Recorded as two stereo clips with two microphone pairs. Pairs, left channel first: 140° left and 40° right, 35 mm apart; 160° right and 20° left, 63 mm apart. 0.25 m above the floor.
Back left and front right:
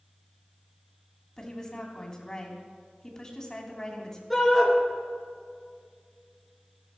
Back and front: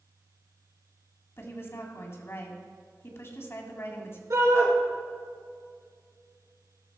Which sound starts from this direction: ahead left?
A shout, at 4.3 s.